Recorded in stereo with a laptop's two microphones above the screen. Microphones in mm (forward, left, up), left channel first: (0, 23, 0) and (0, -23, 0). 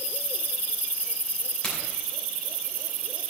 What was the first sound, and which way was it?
A crack, 15° left (ahead or behind).